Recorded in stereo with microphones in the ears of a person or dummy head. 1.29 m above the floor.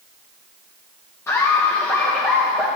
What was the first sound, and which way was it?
Laughter, 15° left (ahead or behind).